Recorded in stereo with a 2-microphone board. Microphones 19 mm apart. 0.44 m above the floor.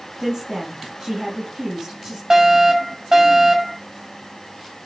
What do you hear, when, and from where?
0.2 s a woman speaking: 15° right (ahead or behind), 4 m
2.3 s a fire alarm: 25° right (ahead or behind), 5 m